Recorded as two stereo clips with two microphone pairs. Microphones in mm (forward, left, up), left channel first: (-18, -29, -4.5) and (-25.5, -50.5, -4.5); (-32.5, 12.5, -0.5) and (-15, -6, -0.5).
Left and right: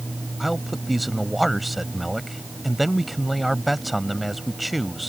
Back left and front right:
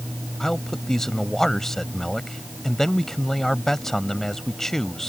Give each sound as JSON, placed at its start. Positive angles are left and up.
{"t": 0.4, "sound": "a man speaking", "azimuth_deg": 175}